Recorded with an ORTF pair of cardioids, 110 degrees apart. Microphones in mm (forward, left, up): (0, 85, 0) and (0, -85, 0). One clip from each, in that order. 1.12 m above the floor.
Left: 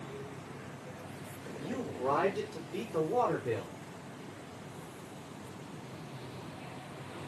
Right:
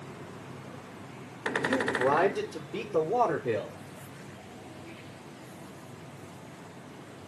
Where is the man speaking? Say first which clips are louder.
Right 8 dB; 40° right, 5 m; by 3.8 s 25° right, 4 m.